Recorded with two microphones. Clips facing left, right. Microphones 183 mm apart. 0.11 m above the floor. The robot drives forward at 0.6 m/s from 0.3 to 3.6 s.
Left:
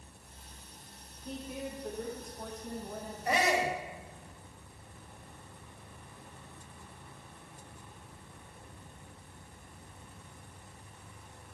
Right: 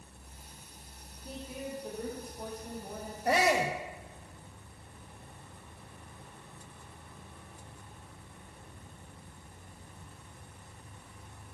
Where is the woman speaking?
5° right (ahead or behind), 6 m.